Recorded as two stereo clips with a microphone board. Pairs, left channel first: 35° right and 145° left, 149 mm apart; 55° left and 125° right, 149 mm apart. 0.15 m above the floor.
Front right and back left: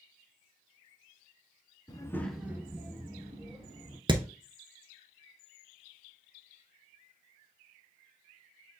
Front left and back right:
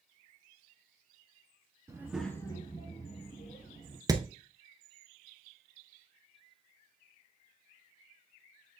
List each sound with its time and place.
1.9 s a child speaking: 70° right, 0.8 m; by 4.0 s 95° left, 2.5 m
4.1 s hammering: 175° right, 0.7 m